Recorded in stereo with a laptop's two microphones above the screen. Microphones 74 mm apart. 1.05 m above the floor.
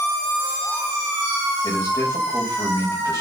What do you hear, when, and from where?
1.6 s a man speaking: 45° left (ahead or behind), 5.5 m